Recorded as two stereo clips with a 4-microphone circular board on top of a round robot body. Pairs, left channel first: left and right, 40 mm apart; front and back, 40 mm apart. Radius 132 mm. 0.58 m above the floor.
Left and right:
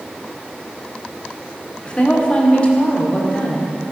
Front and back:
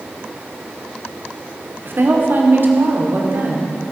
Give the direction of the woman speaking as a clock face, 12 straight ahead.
7 o'clock.